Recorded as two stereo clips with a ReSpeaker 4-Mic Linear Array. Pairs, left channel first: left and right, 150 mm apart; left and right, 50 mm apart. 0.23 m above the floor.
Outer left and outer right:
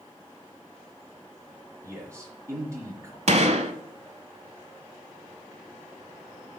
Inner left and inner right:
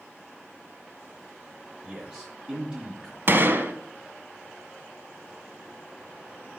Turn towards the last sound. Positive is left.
turn(degrees=-50)  # may be behind; listen again after turning